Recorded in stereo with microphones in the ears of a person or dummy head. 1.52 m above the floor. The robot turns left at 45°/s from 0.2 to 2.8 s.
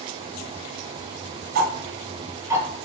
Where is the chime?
No chime in this recording.